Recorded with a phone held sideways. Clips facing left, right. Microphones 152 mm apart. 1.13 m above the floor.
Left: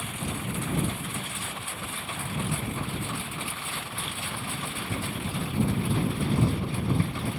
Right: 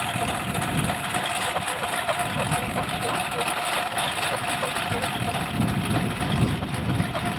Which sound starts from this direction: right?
A lawn mower, at 0.0 s.